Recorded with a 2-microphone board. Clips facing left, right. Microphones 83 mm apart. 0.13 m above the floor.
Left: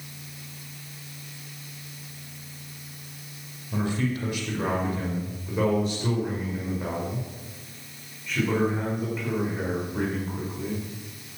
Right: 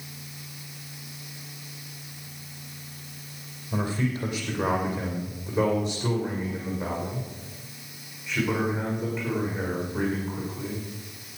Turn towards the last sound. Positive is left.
turn(degrees=0)  # may be behind; listen again after turning